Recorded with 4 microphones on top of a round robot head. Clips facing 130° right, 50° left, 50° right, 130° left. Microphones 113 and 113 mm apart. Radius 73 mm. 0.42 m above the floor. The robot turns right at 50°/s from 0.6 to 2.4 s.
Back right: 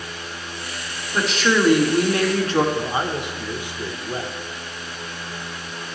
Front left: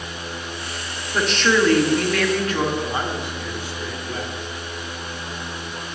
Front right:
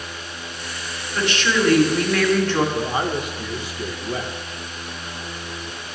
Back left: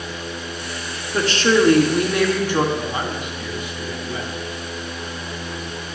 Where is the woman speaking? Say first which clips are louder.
Front left 1 dB, back left 5 dB; 135° left, 1.5 m; by 2.6 s 160° right, 1.5 m.